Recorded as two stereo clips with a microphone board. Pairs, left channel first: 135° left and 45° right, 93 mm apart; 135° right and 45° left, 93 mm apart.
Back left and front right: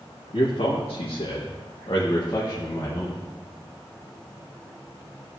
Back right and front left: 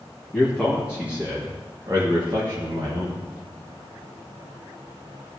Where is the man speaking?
135° left, 1.9 m; by 3.2 s 70° left, 1.8 m.